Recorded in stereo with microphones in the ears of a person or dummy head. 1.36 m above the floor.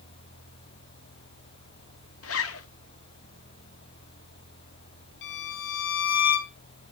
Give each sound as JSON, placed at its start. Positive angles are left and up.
{"t": 2.2, "sound": "a zipper", "side_deg": 70, "distance_m": 0.9}
{"t": 5.2, "sound": "a violin", "side_deg": 60, "distance_m": 2.0}